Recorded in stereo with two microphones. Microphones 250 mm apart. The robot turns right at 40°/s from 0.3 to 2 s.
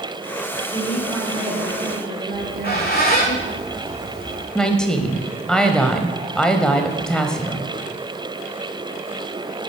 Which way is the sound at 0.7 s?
170° left.